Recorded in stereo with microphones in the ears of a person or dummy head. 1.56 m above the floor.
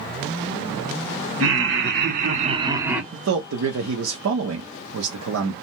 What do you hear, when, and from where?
1.4 s laughter: 65° right (ahead or behind), 1.1 m; by 3.0 s centre (ahead or behind), 0.8 m
3.1 s a man speaking: 85° right, 0.8 m